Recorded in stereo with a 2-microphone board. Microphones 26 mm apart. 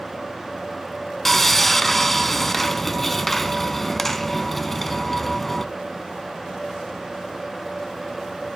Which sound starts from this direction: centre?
Sawing, at 1.2 s.